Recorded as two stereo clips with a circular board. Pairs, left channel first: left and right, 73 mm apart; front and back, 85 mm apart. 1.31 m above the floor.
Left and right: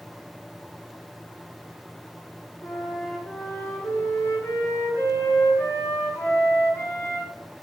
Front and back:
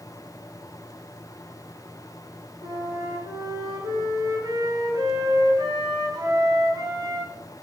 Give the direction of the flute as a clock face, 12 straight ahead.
7 o'clock.